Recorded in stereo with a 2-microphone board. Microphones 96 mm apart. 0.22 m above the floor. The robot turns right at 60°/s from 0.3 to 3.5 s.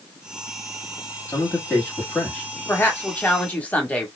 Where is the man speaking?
25° left (ahead or behind), 1.5 m; by 2.5 s 5° right (ahead or behind), 1.5 m.